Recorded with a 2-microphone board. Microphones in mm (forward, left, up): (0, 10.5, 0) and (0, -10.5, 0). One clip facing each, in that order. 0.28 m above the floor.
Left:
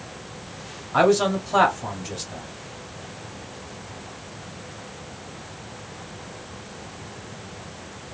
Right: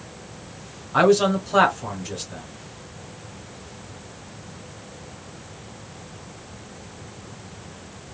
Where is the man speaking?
5° left (ahead or behind), 1.3 m.